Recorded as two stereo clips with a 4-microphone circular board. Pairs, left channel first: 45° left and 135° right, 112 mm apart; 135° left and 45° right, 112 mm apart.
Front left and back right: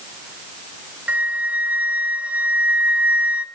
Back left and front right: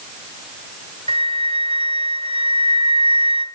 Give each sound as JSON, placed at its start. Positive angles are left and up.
{"t": 1.1, "sound": "a flute", "azimuth_deg": -60, "distance_m": 1.6}